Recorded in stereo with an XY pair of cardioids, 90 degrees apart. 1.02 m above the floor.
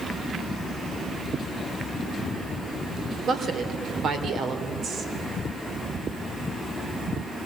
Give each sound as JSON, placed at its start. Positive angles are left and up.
{"t": 3.3, "sound": "a woman speaking", "azimuth_deg": -70, "distance_m": 3.0}